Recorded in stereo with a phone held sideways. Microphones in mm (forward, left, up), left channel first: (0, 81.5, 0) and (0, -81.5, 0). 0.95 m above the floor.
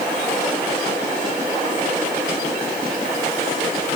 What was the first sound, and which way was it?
Only background noise.